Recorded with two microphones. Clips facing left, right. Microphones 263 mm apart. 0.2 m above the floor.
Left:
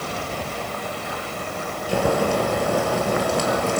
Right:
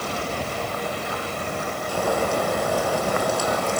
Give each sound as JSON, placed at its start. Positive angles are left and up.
{"t": 1.9, "sound": "boiling", "side_deg": 75, "distance_m": 5.0}